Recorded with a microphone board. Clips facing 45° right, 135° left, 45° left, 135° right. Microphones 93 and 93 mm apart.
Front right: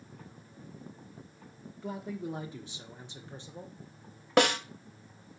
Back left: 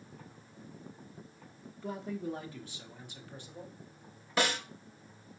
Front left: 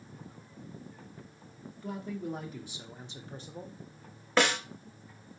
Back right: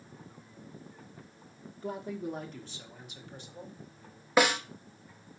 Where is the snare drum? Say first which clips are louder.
Front right 7 dB, back right 2 dB; 55° right, 0.6 m.